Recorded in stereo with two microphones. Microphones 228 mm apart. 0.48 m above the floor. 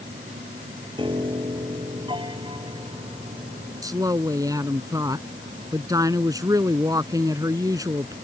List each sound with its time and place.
1.0 s a piano: 20° right (ahead or behind)
3.8 s a woman speaking: 15° right (ahead or behind)